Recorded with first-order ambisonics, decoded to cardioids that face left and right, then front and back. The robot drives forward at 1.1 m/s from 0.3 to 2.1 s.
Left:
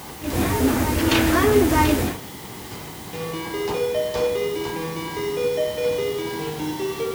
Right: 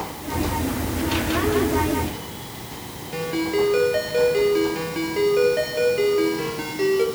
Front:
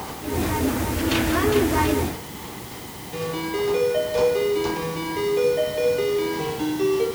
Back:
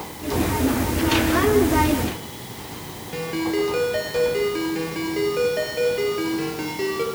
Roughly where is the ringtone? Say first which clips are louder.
Right 5 dB, back 2 dB; behind right.